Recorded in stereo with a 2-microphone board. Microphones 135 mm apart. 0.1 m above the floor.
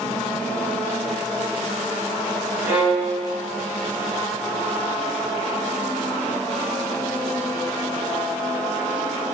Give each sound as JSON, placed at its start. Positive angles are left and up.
{"t": 2.6, "sound": "a violin", "side_deg": -15, "distance_m": 5.5}